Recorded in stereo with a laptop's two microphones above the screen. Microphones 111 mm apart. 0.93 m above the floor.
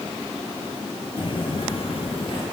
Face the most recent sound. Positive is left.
turn(degrees=50)  # may be behind; listen again after turning